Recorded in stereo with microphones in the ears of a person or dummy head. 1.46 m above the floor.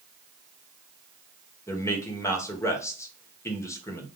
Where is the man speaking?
20° left (ahead or behind), 1.2 m.